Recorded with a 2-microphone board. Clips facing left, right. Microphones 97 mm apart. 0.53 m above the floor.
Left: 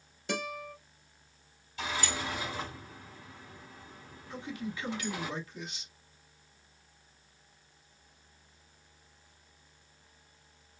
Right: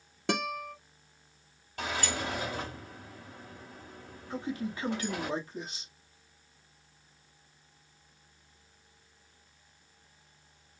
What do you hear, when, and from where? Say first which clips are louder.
0.3 s a guitar: right 4 dB; 70° right (ahead or behind), 1.0 m
1.8 s a sliding door: right 1 dB; 55° right (ahead or behind), 1.8 m
4.3 s a man speaking: right 4 dB; 35° right (ahead or behind), 1.2 m